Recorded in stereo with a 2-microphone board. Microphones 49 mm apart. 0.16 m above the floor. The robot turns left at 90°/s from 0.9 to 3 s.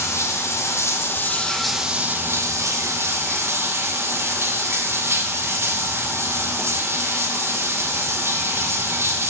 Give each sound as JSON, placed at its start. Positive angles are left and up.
{"t": 0.0, "sound": "running water", "azimuth_deg": 70, "distance_m": 2.0}